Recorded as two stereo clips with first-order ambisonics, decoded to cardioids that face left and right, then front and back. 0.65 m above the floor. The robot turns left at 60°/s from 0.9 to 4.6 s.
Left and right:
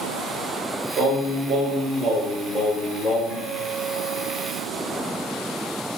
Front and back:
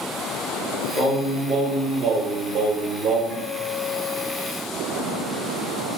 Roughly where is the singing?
Right.